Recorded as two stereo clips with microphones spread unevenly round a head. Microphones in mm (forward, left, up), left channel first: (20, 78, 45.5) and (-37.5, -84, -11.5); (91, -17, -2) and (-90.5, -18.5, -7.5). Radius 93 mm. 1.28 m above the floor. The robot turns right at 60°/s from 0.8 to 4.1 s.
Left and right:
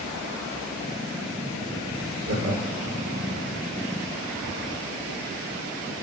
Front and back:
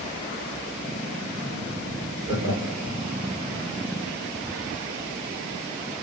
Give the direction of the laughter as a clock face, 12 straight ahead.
4 o'clock.